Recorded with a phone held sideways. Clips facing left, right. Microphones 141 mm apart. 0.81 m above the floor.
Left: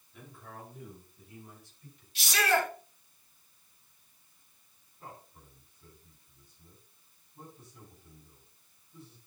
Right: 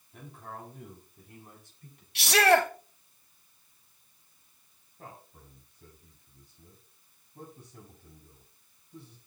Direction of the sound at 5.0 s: 70° right (ahead or behind).